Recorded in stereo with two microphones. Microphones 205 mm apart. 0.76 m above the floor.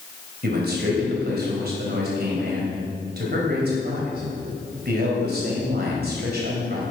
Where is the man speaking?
55° right (ahead or behind), 3.5 m.